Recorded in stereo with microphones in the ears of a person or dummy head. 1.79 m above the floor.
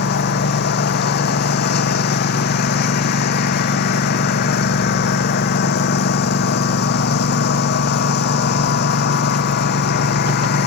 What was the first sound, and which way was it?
A lawn mower, 60° left (ahead or behind).